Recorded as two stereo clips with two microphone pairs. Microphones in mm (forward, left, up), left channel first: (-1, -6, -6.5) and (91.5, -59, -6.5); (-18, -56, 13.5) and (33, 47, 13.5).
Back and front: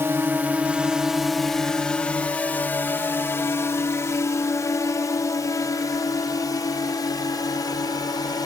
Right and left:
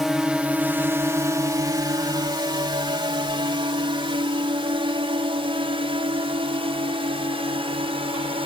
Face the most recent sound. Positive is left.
turn(degrees=100)